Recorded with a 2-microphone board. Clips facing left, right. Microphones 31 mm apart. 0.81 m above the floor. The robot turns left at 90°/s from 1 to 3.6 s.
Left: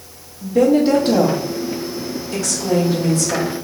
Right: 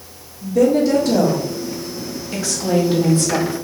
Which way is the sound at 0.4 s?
90° left.